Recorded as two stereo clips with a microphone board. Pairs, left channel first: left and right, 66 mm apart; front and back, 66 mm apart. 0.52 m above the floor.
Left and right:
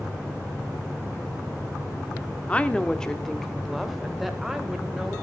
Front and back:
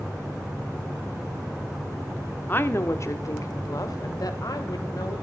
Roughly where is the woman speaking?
Ahead left.